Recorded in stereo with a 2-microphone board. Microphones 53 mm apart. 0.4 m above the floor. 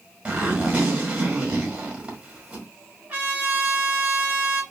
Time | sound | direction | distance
0.2 | a zipper | 25° right (ahead or behind) | 1.7 m
3.1 | a trumpet | 30° right (ahead or behind) | 2.5 m